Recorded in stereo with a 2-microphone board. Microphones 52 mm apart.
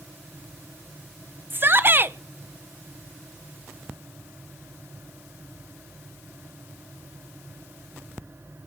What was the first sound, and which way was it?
A shout, 40° right (ahead or behind).